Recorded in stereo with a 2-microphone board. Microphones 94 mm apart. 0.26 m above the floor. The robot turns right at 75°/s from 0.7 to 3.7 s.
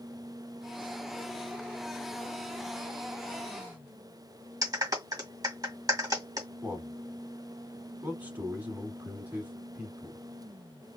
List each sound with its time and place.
4.6 s a clap: 40° right (ahead or behind), 1.7 m
6.6 s a man speaking: 20° right (ahead or behind), 1.6 m